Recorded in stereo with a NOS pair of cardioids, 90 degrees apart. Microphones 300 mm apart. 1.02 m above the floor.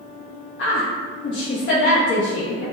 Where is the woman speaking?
45° left, 1.2 m.